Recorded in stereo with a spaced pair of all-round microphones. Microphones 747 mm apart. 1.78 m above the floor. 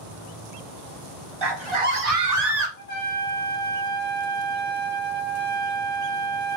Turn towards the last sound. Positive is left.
turn(degrees=60)  # may be behind; listen again after turning